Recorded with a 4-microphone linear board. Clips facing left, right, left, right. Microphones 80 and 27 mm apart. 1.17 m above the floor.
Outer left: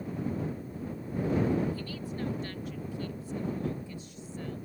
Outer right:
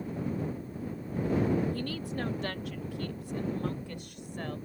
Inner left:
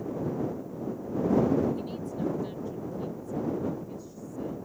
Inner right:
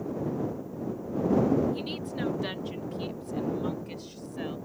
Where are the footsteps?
No footsteps in this recording.